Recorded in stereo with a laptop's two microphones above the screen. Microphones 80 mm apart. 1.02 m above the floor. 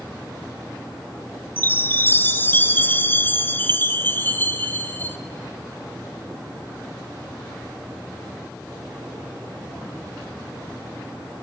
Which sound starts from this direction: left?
A chime, at 1.6 s.